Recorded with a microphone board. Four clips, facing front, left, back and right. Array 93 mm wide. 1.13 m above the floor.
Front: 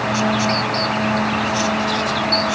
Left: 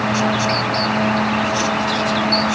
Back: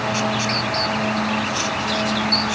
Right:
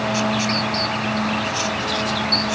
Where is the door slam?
I don't hear a door slam.